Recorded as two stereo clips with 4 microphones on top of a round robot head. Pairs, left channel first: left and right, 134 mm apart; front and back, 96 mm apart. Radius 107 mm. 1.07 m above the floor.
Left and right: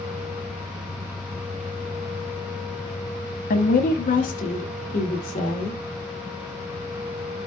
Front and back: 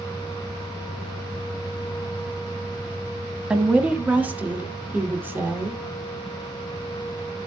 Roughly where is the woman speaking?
Left.